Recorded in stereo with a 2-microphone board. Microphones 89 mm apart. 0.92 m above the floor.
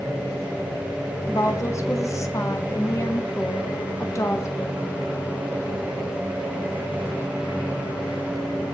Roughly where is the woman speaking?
Left.